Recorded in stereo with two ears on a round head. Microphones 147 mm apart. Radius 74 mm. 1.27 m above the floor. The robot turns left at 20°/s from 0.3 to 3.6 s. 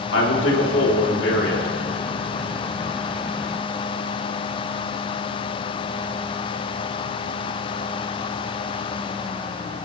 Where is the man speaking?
90° left, 3 m; by 1.7 s 60° left (ahead or behind), 3 m.